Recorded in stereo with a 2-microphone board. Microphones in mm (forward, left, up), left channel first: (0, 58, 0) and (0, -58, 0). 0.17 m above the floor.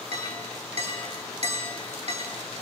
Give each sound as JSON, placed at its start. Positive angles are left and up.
{"t": 0.1, "sound": "a clink", "side_deg": -55, "distance_m": 7.0}